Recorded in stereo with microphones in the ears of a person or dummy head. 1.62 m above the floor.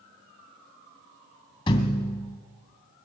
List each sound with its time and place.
1.7 s a thud: 25° left (ahead or behind), 2 m